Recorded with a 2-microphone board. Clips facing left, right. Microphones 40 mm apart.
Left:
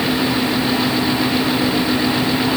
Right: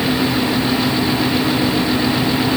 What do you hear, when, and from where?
Only background noise.